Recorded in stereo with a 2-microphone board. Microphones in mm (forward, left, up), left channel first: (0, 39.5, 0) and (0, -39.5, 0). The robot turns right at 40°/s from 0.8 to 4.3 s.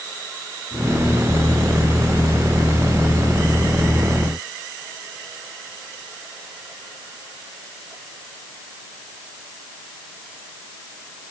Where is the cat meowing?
I don't hear a cat meowing.